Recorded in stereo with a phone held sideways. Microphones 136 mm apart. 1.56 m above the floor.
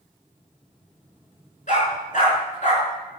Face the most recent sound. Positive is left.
turn(degrees=65)  # may be behind; listen again after turning